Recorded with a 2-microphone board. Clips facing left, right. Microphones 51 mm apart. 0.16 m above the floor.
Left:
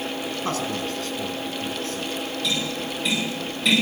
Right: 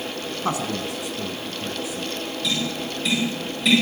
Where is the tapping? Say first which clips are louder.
Right 2 dB; 5° left (ahead or behind), 8 m.